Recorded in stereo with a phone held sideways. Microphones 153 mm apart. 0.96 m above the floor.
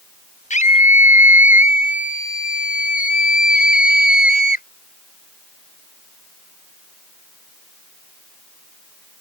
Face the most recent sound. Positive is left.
turn(degrees=75)  # may be behind; listen again after turning